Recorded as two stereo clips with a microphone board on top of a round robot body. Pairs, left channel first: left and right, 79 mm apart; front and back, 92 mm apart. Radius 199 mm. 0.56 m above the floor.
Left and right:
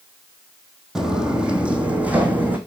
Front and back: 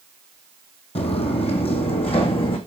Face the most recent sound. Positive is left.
turn(degrees=-20)